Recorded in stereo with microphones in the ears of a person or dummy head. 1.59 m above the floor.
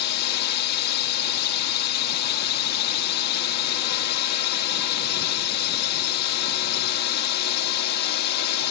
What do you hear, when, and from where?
0.0 s a drone: 55° left (ahead or behind)